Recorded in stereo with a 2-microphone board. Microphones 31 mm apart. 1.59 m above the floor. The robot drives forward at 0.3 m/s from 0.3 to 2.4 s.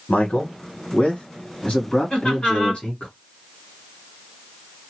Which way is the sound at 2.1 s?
35° left (ahead or behind).